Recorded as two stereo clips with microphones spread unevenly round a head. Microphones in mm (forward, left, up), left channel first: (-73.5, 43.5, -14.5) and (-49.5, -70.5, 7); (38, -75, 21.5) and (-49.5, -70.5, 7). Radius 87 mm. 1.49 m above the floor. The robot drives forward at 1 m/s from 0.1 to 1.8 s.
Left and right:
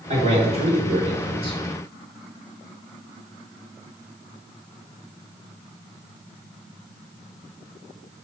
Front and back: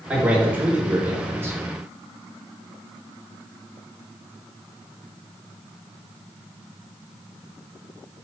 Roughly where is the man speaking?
Right.